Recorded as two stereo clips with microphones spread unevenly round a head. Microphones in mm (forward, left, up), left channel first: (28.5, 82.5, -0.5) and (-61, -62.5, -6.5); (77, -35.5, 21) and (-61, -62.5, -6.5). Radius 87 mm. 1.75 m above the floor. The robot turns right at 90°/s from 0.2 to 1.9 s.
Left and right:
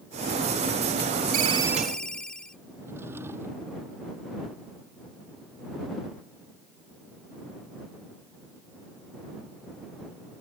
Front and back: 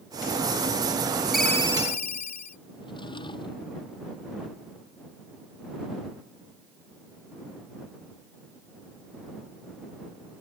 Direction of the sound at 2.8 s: 45° right.